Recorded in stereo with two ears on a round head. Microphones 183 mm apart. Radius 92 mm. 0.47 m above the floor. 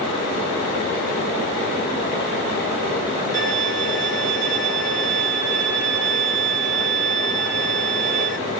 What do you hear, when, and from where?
3.3 s a violin: 40° right (ahead or behind), 1.1 m